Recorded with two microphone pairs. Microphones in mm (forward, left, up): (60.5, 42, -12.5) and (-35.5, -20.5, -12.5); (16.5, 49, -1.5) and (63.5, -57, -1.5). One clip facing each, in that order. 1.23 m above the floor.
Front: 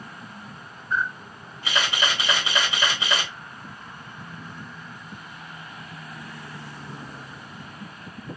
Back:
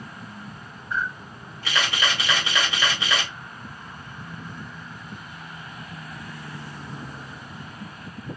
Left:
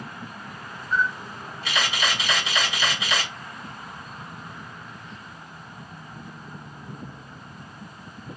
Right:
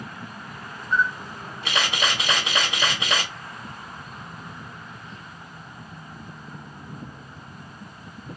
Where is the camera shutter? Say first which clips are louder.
Front 2 dB, right 1 dB; 35° right, 1.5 m.